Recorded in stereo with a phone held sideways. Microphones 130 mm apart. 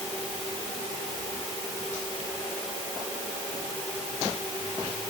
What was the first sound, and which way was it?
Only background noise.